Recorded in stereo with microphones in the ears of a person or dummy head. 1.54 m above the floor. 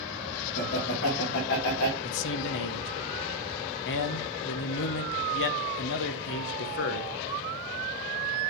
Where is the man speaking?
60° left (ahead or behind), 0.8 m.